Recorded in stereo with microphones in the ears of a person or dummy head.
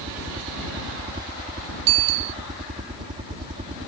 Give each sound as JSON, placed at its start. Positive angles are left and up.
{"t": 0.0, "sound": "a helicopter", "side_deg": -25}
{"t": 1.9, "sound": "a bicycle bell", "side_deg": -50}